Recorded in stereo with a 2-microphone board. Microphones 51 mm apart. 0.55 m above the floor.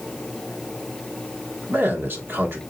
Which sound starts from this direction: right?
A man speaking, at 1.7 s.